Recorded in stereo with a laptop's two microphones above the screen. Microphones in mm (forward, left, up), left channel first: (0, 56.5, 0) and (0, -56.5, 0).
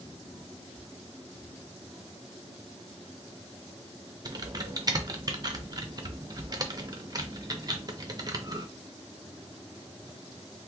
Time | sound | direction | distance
4.2 | typing on a keyboard | 35° right (ahead or behind) | 0.7 m